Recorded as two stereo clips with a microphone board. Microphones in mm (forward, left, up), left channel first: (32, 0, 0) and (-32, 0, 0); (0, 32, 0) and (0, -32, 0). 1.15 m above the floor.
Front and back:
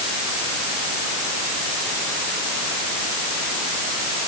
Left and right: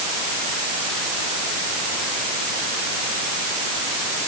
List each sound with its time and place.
Only background noise.